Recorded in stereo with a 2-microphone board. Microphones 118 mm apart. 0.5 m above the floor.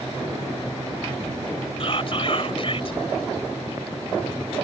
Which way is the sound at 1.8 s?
50° left (ahead or behind).